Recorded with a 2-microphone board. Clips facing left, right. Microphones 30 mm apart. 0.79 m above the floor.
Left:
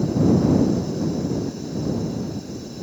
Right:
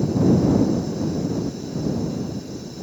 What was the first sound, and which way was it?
Only background noise.